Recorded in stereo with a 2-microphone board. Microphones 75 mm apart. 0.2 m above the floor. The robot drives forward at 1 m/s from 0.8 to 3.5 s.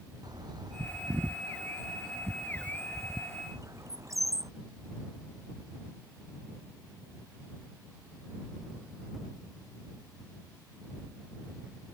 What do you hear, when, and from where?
0.2 s a bird: 60° right (ahead or behind); by 4.5 s 45° right (ahead or behind)